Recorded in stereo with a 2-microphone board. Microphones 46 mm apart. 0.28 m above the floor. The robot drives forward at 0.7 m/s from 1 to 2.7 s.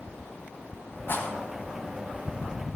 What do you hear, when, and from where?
1.1 s a rattle: 50° left (ahead or behind), 1.4 m; by 2.8 s 40° left (ahead or behind), 1.8 m